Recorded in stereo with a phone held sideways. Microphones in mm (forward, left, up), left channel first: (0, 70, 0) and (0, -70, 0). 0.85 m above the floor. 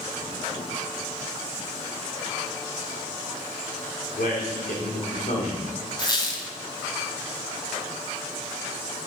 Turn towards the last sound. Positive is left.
turn(degrees=30)  # may be behind; listen again after turning